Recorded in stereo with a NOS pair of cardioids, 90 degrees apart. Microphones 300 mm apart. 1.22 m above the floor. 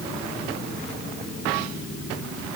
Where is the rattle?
No rattle in this recording.